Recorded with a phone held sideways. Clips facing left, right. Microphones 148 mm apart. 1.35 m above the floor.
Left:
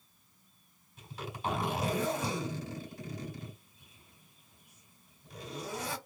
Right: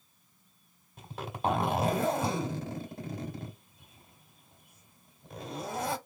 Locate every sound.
1.0 s a zipper: 55° right (ahead or behind), 1.7 m